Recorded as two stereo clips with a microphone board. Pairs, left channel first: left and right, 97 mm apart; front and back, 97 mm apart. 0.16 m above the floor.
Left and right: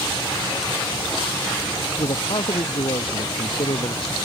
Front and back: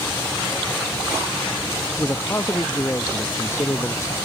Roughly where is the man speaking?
Ahead left.